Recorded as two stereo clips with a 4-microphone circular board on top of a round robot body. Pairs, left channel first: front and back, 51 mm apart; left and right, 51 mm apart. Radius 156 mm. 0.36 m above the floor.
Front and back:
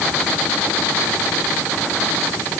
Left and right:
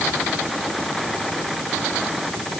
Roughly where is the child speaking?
No child speaking in this recording.